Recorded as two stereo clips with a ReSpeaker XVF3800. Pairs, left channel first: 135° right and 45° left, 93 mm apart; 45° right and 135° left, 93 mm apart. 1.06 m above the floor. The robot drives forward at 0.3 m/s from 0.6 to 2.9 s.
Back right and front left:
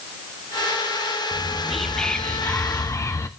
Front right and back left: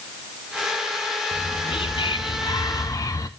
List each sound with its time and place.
1.3 s whispering: 35° right, 0.7 m; by 3.3 s 85° right, 0.5 m